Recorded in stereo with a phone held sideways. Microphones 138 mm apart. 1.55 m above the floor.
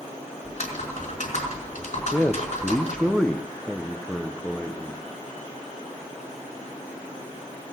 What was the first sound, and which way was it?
Typing on a keyboard, 65° left (ahead or behind).